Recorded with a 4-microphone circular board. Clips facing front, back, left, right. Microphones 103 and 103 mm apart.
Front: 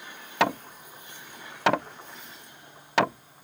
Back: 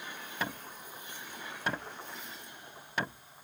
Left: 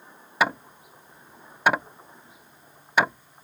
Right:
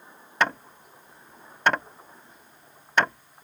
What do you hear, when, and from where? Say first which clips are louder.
0.4 s hammering: front 14 dB, left 1 dB; 5° left